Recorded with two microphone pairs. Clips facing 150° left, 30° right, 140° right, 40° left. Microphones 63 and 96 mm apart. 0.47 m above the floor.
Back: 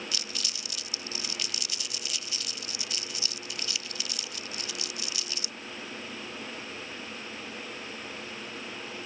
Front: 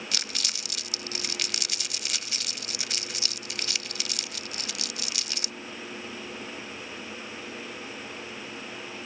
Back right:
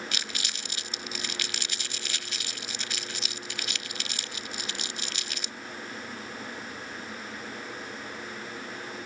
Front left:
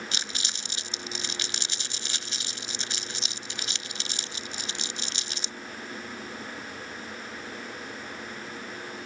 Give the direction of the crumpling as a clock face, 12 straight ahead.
1 o'clock.